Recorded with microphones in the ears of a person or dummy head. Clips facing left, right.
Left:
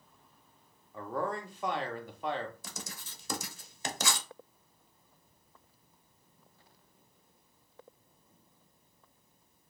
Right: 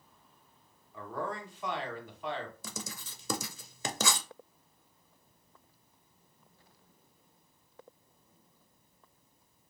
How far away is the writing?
About 0.5 m.